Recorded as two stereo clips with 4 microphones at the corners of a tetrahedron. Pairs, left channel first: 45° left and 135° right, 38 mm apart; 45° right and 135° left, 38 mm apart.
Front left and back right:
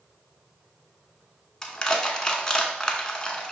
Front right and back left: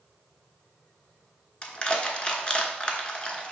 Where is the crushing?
10° right, 0.7 m.